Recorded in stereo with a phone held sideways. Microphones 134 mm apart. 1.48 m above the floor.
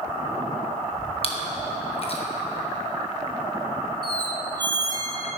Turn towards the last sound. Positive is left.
turn(degrees=-30)  # may be behind; listen again after turning